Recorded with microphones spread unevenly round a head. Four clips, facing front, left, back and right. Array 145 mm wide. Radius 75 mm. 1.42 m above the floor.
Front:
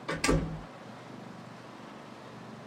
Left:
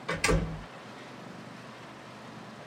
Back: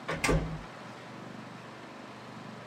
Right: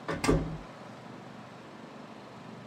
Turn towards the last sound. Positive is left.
turn(degrees=-85)